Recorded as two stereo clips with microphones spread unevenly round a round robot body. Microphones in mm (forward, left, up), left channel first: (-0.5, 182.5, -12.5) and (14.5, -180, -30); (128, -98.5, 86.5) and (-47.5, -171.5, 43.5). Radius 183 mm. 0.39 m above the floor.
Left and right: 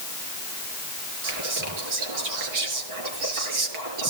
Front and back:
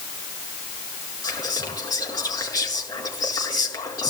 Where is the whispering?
50° right, 6.5 m.